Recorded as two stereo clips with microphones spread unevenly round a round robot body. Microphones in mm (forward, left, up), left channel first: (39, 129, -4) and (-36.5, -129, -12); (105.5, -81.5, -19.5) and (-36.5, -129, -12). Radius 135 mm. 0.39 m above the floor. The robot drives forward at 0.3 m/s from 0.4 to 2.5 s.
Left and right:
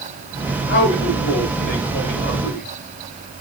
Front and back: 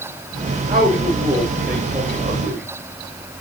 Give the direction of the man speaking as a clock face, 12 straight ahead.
8 o'clock.